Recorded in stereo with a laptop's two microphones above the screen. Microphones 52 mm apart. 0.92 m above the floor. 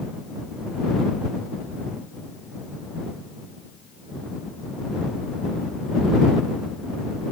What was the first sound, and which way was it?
Only background noise.